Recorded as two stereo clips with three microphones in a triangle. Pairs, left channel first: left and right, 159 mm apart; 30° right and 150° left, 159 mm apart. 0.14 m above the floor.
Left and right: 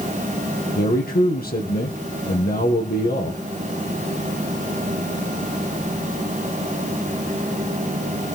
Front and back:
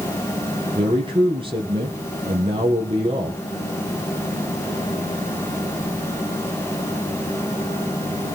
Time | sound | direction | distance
0.8 | a man speaking | 95° left | 4.5 m